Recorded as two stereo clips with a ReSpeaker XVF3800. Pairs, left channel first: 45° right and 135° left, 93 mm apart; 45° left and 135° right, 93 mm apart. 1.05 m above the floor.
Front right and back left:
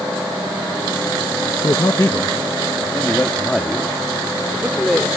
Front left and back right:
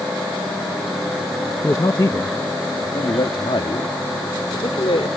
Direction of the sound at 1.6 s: 10° right.